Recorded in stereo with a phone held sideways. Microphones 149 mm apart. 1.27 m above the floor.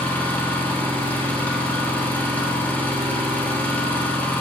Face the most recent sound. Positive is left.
turn(degrees=10)  # may be behind; listen again after turning